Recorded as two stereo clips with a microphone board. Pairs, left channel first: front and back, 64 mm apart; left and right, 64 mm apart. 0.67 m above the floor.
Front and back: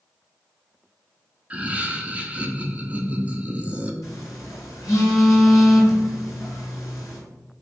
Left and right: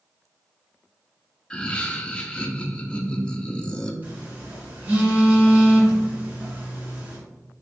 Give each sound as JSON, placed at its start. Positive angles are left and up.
{"t": 1.5, "sound": "laughter", "azimuth_deg": 145, "distance_m": 0.5}
{"t": 4.0, "sound": "a phone buzzing", "azimuth_deg": -25, "distance_m": 2.0}